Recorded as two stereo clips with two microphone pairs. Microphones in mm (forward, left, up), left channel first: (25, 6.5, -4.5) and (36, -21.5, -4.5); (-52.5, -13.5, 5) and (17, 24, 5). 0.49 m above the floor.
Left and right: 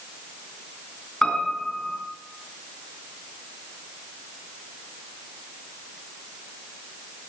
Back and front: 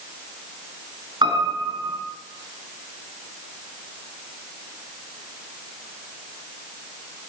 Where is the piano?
45° left, 3.5 m.